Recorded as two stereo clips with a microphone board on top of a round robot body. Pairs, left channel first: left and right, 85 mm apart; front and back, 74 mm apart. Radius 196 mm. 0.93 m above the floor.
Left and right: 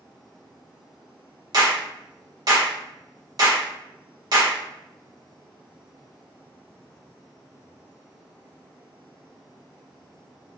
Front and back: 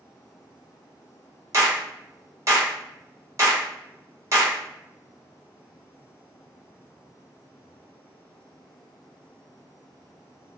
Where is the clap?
130° right, 1.1 m.